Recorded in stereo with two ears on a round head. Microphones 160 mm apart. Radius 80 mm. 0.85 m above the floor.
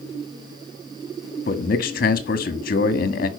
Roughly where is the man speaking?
Left.